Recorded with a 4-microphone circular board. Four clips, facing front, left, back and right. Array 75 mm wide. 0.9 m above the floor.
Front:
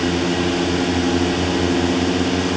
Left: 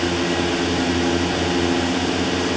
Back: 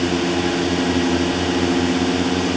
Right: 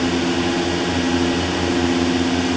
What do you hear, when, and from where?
Only background noise.